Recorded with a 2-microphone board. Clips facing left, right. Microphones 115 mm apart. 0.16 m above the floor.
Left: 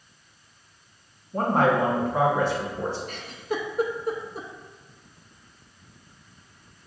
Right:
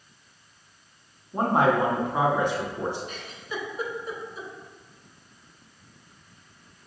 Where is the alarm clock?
I don't hear an alarm clock.